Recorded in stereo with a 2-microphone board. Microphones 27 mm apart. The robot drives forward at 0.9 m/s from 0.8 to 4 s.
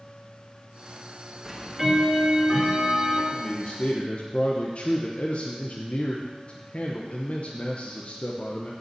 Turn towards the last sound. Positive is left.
turn(degrees=50)  # may be behind; listen again after turning